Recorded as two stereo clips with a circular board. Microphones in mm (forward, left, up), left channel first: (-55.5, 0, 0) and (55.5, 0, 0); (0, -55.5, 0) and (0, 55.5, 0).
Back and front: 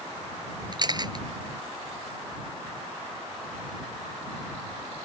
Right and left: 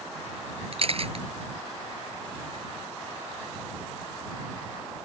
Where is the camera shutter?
55° left.